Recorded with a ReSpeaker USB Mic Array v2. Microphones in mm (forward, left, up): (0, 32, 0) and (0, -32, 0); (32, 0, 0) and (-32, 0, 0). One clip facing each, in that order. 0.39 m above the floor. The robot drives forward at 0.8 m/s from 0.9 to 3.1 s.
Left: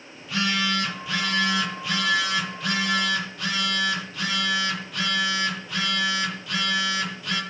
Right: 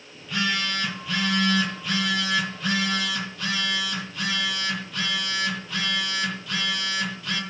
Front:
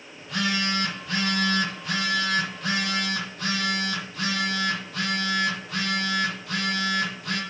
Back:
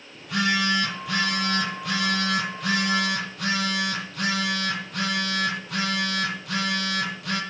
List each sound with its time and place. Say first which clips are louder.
0.1 s a phone buzzing: left 1 dB, back 3 dB; 175° left, 9.5 m